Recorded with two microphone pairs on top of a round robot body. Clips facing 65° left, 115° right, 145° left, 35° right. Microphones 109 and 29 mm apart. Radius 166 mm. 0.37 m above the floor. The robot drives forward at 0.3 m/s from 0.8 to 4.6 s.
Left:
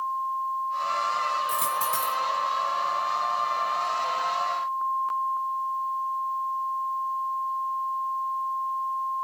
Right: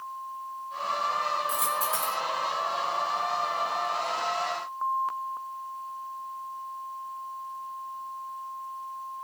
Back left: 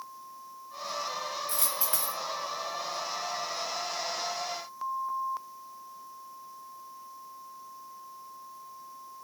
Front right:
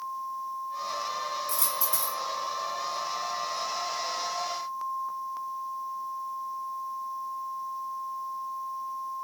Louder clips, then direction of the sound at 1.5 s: Left 2 dB, front right 2 dB; 90° left.